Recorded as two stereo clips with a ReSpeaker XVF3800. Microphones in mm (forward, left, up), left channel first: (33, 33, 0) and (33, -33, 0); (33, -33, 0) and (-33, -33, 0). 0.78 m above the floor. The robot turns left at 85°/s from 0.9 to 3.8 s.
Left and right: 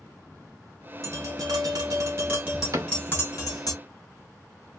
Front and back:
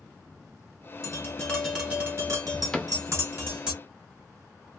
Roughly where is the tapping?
Ahead right.